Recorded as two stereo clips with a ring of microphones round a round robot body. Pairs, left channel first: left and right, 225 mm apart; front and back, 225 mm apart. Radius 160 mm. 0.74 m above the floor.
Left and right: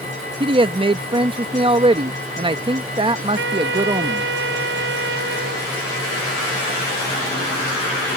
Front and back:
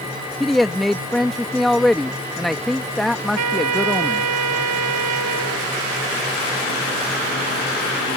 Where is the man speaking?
90° right.